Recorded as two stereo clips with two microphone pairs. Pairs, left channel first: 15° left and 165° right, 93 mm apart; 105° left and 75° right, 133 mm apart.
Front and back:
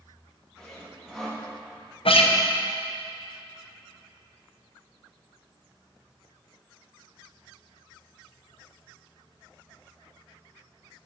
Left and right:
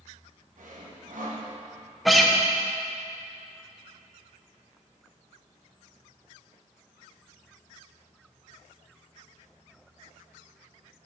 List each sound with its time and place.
0.6 s sawing: 70° right, 1.2 m
2.0 s a guitar: 15° left, 0.6 m